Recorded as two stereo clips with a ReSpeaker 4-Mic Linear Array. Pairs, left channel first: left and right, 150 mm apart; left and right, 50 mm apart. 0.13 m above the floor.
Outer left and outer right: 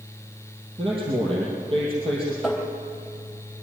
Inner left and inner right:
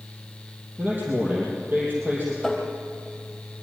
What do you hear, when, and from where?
0.8 s a man speaking: 35° right (ahead or behind), 4.5 m
2.4 s tapping: centre (ahead or behind), 3 m